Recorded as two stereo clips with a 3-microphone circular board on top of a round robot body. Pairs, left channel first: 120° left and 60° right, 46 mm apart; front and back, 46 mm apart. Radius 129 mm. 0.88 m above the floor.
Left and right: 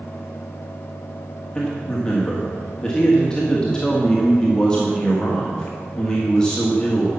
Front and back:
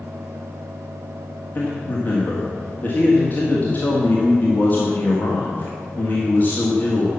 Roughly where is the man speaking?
Ahead left.